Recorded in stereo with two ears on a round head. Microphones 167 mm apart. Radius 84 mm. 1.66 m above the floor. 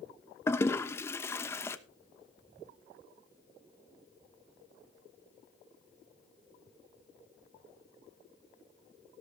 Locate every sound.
0.5 s a toilet flushing: 15° left (ahead or behind), 1.0 m